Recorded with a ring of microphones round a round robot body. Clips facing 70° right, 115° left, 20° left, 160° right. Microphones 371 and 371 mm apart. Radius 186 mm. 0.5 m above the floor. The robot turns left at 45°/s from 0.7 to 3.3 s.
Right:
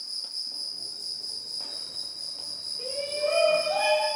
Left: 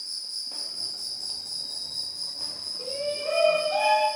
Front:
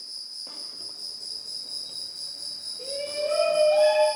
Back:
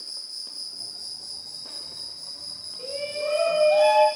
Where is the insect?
125° left, 1.0 m; by 4.2 s 5° left, 1.0 m.